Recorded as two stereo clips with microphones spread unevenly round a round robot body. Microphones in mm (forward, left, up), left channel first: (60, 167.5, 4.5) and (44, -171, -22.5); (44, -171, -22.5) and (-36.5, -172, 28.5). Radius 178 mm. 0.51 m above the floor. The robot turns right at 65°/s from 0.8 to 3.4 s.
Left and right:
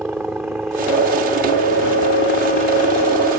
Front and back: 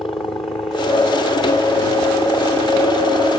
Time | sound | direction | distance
0.0 | a helicopter | 10° right | ?